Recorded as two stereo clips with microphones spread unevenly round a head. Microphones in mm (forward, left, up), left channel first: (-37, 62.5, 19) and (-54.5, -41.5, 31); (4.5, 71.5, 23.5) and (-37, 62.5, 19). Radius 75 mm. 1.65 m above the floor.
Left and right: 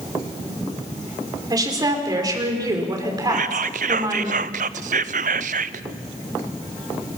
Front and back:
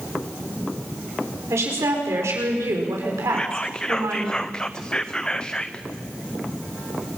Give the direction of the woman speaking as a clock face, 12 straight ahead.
5 o'clock.